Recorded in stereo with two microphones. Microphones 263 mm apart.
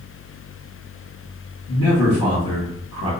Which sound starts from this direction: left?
A man speaking, at 1.7 s.